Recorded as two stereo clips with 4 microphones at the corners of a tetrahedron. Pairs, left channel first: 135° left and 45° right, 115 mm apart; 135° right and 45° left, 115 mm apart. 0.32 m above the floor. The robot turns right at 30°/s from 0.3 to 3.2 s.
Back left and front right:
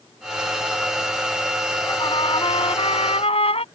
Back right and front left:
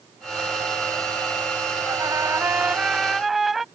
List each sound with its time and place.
1.9 s a trumpet: 95° left; by 3.6 s 135° left